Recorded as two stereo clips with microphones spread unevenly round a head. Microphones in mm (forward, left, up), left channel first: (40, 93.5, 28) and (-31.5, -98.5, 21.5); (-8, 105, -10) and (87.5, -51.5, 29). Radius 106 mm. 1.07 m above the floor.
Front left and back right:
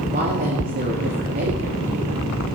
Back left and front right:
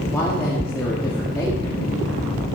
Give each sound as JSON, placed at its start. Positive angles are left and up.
{"t": 0.1, "sound": "a woman speaking", "azimuth_deg": -160, "distance_m": 2.5}